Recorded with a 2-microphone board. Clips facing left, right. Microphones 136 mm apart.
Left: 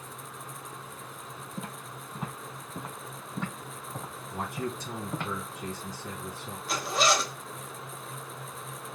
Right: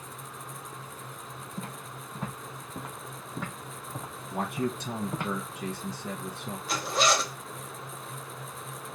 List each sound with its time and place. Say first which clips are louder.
1.6 s footsteps: even; 15° left (ahead or behind), 1.6 m; by 5.3 s 15° right (ahead or behind), 3.5 m
4.3 s a man speaking: right 4 dB; 65° right (ahead or behind), 1.2 m
6.7 s a zipper: even; centre (ahead or behind), 0.7 m